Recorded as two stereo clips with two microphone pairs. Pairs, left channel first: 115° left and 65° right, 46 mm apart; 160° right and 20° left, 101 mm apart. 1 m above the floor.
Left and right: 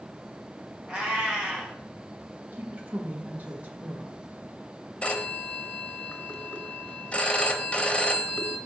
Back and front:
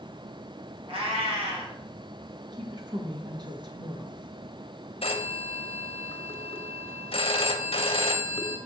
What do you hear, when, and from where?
0.9 s a cat meowing: 10° left, 2.0 m
2.5 s a woman speaking: 15° right, 1.1 m
5.0 s a phone ringing: 175° right, 0.7 m